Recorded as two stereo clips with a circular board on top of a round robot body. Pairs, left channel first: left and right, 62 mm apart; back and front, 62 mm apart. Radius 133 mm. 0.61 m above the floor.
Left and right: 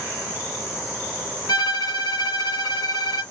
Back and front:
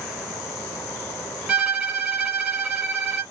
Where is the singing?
No singing in this recording.